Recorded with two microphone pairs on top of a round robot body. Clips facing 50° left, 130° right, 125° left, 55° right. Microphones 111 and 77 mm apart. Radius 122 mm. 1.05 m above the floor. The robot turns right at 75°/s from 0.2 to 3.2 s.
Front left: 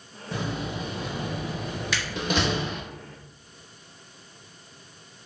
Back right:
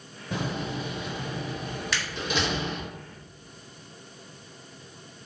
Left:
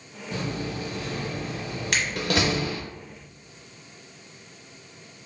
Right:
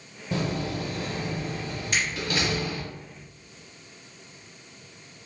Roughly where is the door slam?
Ahead right.